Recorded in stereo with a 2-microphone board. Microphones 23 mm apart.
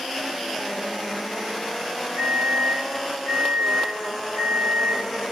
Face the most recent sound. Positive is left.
turn(degrees=-30)  # may be behind; listen again after turning